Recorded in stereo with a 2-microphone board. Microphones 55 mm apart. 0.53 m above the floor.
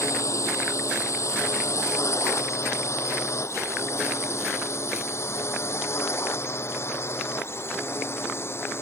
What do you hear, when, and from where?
0.0 s a drone: 65° left (ahead or behind); by 8.8 s 45° left (ahead or behind)